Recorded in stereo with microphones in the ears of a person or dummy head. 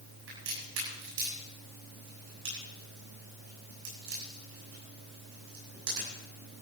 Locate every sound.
0.3 s a crack: 85° right, 7.5 m